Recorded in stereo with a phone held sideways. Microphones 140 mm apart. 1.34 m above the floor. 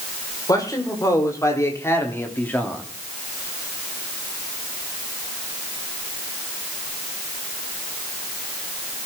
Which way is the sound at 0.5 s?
25° left (ahead or behind).